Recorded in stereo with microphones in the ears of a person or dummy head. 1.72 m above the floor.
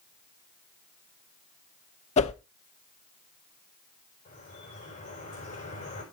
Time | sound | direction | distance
2.2 | a whoosh | 35° left (ahead or behind) | 0.6 m
4.2 | dripping | 35° left (ahead or behind) | 6 m